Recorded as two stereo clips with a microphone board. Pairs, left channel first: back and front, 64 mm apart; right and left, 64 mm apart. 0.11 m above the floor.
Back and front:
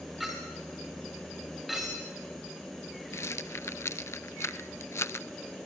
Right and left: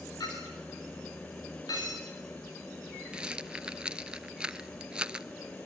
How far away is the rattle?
About 0.6 m.